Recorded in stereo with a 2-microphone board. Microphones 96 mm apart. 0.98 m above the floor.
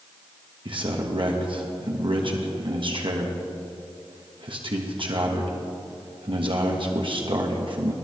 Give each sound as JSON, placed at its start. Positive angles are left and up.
{"t": 0.7, "sound": "a man speaking", "side_deg": -60, "distance_m": 1.3}